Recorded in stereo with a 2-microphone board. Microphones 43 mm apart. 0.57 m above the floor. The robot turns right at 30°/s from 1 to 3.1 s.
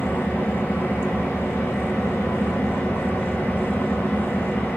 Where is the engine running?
65° left, 1.1 m; by 4.8 s 130° left, 1.1 m.